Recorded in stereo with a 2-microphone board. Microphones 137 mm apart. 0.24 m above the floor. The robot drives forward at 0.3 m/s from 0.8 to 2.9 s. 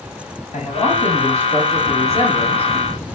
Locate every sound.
0.5 s a man speaking: 55° left (ahead or behind), 3.5 m; by 2.7 s 50° left (ahead or behind), 3.5 m